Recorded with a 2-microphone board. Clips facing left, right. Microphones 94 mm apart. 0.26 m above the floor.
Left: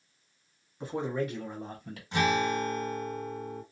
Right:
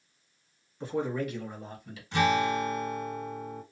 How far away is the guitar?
About 2.5 m.